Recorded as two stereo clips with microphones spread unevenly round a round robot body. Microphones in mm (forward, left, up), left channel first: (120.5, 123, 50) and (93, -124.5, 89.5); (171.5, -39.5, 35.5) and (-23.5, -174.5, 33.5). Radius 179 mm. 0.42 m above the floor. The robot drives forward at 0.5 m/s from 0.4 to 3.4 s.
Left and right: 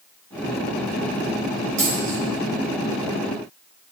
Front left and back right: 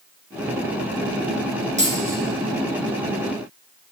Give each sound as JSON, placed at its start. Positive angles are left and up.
{"t": 1.8, "sound": "a dropped coin", "azimuth_deg": -85, "distance_m": 3.0}